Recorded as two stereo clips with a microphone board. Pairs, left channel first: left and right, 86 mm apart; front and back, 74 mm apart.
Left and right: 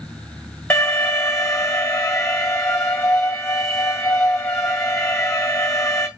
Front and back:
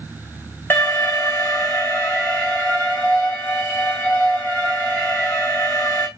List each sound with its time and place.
0.7 s an alarm: 45° left, 1.9 m